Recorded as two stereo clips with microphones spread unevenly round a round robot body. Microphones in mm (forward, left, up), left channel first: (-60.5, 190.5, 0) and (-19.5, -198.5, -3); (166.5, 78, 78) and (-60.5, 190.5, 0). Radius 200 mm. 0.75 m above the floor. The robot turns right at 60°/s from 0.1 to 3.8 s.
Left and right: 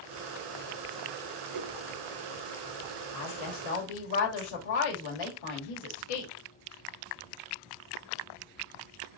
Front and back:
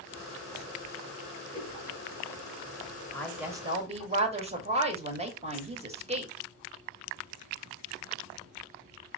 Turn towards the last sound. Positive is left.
turn(degrees=105)